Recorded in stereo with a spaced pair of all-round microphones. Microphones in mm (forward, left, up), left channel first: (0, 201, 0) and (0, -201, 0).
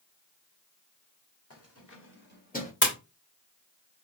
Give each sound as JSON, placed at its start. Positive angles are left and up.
{"t": 1.5, "sound": "keys jangling", "side_deg": 35, "distance_m": 1.6}
{"t": 2.8, "sound": "a splash", "side_deg": 25, "distance_m": 2.0}